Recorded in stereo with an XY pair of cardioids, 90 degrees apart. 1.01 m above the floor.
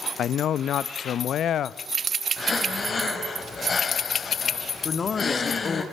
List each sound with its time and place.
0.2 s a man speaking: 70° left, 0.8 m
2.4 s breathing: 40° left, 4 m
4.8 s a man speaking: 45° left, 2 m